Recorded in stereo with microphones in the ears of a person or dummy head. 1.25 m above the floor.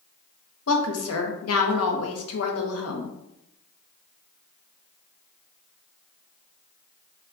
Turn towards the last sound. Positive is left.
turn(degrees=75)  # may be behind; listen again after turning